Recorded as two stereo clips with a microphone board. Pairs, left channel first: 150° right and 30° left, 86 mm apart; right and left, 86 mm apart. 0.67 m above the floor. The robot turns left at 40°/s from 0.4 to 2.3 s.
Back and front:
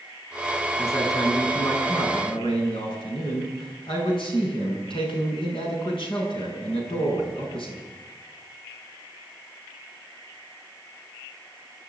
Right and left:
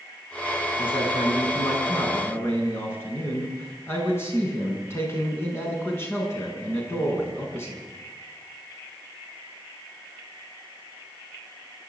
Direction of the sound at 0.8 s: 90° right.